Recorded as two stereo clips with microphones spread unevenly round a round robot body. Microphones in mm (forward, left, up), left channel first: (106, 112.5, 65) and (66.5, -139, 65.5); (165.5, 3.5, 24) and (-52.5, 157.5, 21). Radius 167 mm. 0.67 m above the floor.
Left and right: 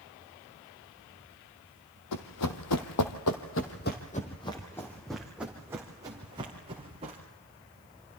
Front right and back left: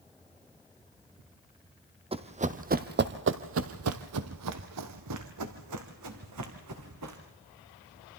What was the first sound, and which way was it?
Running footsteps, 80° left.